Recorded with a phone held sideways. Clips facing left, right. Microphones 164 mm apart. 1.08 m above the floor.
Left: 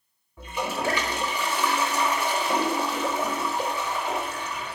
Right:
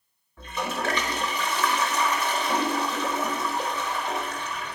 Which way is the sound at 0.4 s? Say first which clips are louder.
Left 1 dB; 10° left (ahead or behind).